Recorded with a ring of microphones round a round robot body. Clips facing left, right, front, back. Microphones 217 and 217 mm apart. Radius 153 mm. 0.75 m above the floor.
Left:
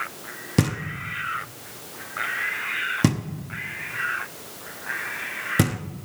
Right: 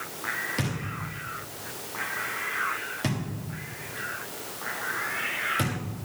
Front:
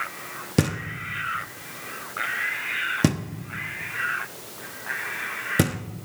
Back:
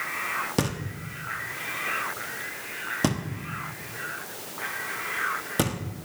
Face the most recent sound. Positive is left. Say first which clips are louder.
# left 9 dB, front 4 dB
turn(degrees=65)